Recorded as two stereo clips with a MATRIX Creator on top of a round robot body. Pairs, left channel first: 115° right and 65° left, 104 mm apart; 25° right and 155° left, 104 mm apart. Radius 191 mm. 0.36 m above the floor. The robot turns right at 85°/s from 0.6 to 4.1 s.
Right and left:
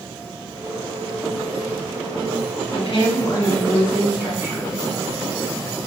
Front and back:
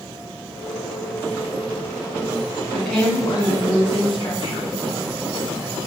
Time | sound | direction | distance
2.7 | a woman speaking | 125° right | 1.7 m